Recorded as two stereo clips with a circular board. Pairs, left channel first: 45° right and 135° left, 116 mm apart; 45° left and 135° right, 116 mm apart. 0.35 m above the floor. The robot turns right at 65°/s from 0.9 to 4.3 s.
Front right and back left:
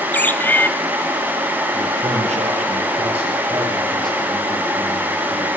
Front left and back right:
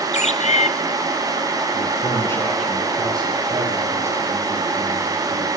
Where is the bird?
30° left, 0.6 m.